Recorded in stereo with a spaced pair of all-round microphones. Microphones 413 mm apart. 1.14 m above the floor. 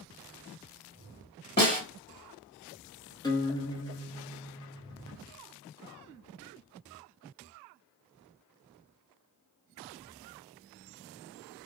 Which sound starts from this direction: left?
A snare drum, at 1.6 s.